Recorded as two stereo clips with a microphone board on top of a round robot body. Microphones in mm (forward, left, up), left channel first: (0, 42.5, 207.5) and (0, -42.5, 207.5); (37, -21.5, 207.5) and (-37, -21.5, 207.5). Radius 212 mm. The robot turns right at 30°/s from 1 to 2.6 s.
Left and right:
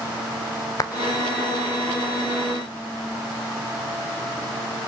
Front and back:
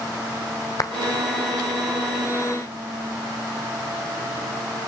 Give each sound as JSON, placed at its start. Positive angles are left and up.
{"t": 0.8, "sound": "a clap", "azimuth_deg": 40, "distance_m": 2.5}